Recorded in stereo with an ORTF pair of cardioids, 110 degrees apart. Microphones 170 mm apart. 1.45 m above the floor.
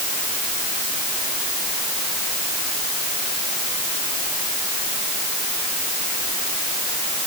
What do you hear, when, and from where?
Only background noise.